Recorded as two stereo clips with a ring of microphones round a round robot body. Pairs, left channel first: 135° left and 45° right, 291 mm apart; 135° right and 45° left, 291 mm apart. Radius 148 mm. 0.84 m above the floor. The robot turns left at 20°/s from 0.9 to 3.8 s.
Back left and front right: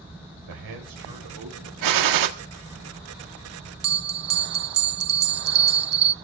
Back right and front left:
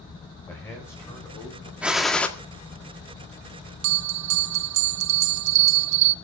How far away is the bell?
About 0.6 m.